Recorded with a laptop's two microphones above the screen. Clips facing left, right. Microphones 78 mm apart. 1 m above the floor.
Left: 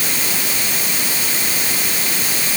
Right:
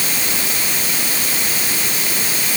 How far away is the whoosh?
I don't hear a whoosh.